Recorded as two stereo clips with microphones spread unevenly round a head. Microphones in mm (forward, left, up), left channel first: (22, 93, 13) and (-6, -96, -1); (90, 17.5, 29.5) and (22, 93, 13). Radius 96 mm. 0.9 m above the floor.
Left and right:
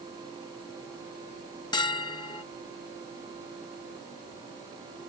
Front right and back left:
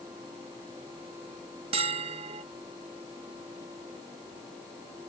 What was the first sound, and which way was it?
A bell, 150° left.